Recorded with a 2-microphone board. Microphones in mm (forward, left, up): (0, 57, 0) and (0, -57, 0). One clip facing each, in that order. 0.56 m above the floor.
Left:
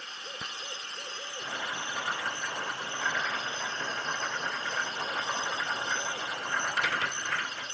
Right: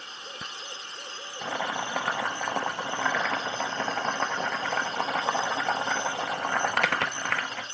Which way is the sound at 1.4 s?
70° right (ahead or behind).